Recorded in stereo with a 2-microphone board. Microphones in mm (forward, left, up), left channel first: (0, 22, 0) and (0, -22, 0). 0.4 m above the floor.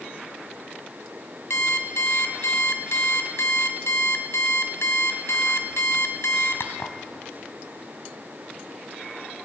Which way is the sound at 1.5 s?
75° left (ahead or behind).